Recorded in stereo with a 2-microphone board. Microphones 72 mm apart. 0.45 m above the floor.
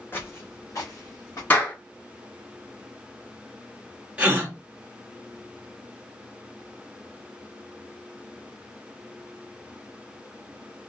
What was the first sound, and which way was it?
Footsteps, 30° left (ahead or behind).